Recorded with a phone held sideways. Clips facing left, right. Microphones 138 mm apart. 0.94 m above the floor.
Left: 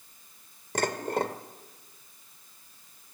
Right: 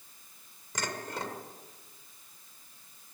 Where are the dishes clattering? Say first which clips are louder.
Left 9 dB; 55° left (ahead or behind), 1.8 m.